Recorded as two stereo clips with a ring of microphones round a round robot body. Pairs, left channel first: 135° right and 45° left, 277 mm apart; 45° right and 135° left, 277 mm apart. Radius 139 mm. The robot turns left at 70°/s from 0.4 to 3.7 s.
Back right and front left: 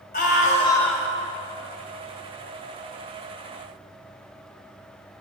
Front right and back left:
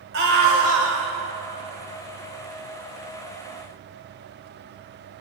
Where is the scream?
170° left, 2 m; by 1.1 s 120° left, 2 m.